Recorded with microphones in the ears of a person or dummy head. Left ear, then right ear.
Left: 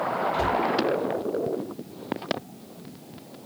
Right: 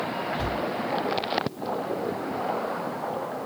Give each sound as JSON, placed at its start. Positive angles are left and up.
{"t": 0.3, "sound": "a cupboard door", "side_deg": 50, "distance_m": 4.5}